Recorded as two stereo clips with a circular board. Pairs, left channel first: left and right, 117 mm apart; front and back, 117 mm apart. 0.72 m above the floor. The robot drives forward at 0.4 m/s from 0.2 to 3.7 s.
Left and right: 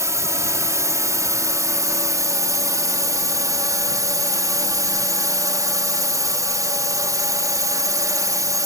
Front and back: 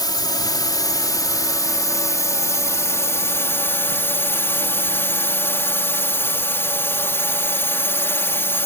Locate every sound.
0.0 s a drone: 35° right; by 8.7 s 55° right